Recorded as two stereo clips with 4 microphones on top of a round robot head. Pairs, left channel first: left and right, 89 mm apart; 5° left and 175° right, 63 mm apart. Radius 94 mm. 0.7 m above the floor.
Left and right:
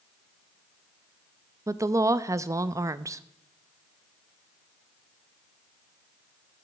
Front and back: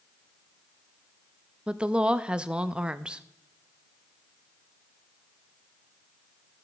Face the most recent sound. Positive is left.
turn(degrees=-115)